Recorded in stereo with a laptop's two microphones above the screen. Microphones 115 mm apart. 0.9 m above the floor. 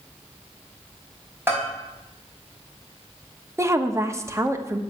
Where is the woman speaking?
25° right (ahead or behind), 1.1 m.